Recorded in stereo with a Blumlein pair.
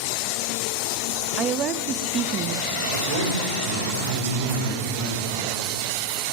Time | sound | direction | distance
1.4 | a woman speaking | 30° right | 0.5 m
2.9 | a man speaking | 60° right | 2.5 m